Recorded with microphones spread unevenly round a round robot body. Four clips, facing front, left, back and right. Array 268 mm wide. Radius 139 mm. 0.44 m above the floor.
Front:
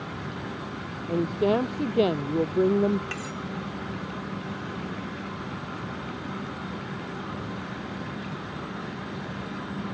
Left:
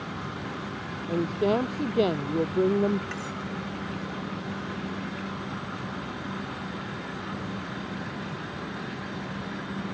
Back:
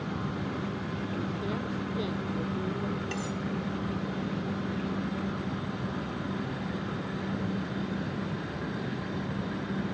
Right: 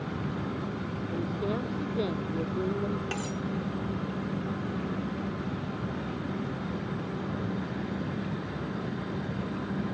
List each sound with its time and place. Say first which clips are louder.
1.1 s a woman speaking: left 8 dB, front 13 dB; 35° left
3.1 s cutlery clinking: right 1 dB, back 1 dB; 100° right